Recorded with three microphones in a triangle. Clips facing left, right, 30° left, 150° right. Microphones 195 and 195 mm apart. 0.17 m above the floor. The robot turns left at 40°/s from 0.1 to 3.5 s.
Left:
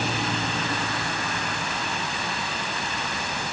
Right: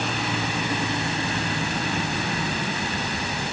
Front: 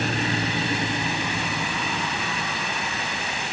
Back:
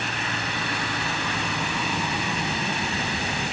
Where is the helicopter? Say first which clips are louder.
Even, front 6 dB; 5° left; by 3.5 s 135° right.